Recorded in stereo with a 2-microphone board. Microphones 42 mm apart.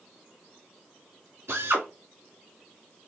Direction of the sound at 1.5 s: 85° right.